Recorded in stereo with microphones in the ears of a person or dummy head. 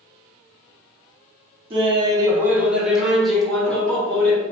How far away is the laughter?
About 0.7 m.